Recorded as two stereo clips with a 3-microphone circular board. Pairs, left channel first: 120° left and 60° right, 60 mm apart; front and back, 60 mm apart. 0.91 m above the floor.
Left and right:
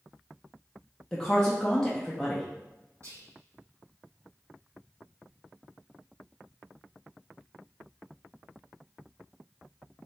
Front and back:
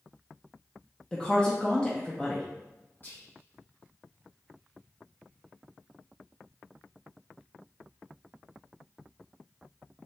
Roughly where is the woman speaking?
Ahead left.